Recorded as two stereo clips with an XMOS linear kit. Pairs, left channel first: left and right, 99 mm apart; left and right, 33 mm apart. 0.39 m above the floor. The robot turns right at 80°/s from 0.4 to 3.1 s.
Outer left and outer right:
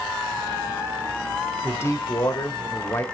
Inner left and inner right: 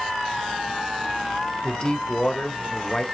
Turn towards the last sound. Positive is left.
turn(degrees=145)